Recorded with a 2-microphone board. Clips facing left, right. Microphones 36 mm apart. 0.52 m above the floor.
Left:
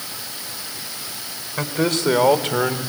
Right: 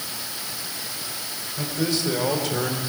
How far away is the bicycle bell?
I don't hear a bicycle bell.